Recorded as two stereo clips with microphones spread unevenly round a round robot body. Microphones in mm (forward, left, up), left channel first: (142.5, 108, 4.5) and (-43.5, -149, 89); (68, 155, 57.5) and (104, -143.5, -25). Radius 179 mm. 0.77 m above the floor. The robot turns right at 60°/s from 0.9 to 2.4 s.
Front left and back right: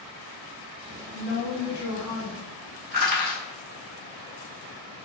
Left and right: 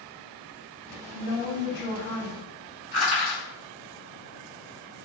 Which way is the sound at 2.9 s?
170° left.